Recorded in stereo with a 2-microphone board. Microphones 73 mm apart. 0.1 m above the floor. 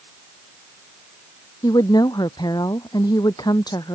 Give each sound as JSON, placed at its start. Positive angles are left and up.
{"t": 1.6, "sound": "a woman speaking", "side_deg": 70}